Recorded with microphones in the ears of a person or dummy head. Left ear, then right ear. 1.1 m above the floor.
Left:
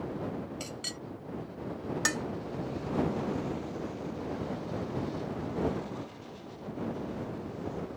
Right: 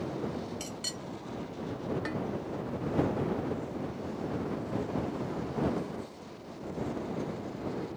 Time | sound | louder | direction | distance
0.6 | a clink | right 1 dB | 20° left (ahead or behind) | ?
2.0 | dishes clattering | left 5 dB | 80° left | ?